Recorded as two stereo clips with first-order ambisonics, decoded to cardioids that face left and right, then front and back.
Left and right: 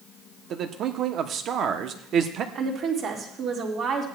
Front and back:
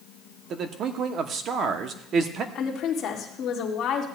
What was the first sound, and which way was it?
A man speaking, 135° right.